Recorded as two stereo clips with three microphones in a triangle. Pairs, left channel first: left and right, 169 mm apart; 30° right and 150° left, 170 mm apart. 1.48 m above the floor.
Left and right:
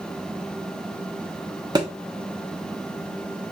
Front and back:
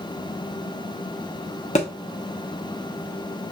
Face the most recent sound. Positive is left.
turn(degrees=-35)